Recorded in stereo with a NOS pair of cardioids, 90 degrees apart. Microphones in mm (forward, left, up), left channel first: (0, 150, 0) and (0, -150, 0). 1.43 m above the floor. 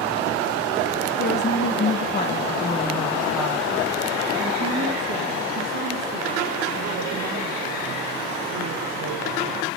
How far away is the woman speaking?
About 1.3 m.